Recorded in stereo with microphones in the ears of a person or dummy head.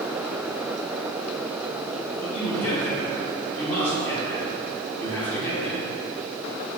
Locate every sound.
2.2 s a man speaking: 10° left (ahead or behind), 1.4 m